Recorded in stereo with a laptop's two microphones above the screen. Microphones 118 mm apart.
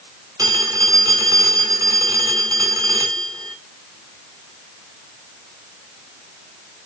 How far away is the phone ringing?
About 1.9 m.